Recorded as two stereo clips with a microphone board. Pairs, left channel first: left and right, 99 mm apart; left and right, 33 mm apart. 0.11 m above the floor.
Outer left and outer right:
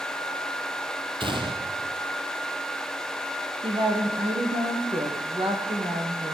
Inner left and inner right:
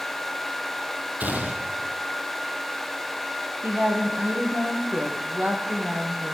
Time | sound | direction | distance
1.2 | a gunshot | 55° right (ahead or behind) | 2 m
3.6 | a woman speaking | 70° right (ahead or behind) | 5 m